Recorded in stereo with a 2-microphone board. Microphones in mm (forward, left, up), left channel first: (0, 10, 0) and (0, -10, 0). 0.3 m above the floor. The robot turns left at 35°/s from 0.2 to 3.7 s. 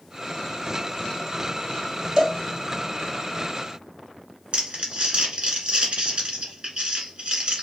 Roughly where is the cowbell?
Right.